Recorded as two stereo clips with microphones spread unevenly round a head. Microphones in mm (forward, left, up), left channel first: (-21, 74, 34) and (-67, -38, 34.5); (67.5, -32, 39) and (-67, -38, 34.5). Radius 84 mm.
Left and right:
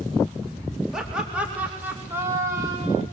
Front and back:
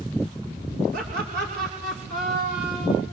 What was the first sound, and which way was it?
Laughter, 160° left.